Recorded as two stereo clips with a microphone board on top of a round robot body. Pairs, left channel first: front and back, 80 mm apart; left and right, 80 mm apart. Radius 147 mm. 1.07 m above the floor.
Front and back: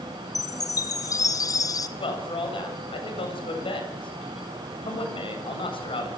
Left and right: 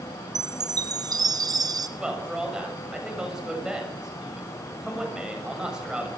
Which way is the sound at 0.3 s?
50° right.